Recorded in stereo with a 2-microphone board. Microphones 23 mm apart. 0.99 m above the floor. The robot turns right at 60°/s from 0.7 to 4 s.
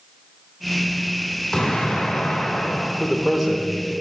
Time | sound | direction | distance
1.5 | an explosion | 25° left | 3 m
3.0 | a man speaking | 135° left | 0.9 m